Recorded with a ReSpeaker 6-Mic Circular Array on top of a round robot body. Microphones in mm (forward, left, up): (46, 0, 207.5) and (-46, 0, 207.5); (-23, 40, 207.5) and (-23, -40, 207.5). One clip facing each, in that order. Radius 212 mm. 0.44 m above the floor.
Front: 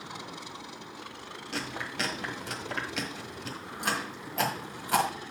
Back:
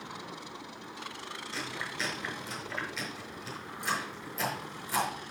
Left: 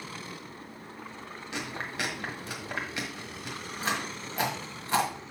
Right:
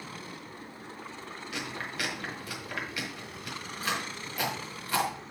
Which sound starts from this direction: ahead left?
Chewing, at 1.5 s.